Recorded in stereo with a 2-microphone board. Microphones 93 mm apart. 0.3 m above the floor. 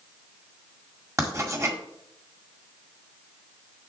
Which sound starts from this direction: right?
Writing, at 1.2 s.